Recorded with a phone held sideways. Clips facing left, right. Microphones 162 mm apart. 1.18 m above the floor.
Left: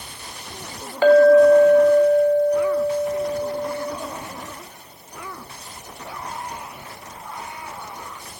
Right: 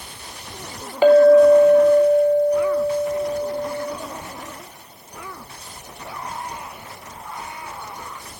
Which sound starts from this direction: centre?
A clink, at 1.0 s.